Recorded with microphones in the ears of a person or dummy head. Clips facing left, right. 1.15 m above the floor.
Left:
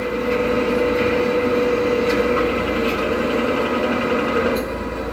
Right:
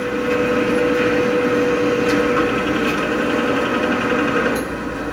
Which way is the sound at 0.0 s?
30° right (ahead or behind).